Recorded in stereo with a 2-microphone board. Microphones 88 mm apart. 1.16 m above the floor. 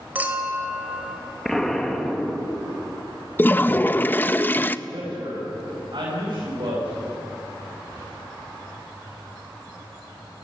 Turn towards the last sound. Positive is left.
turn(degrees=-60)  # may be behind; listen again after turning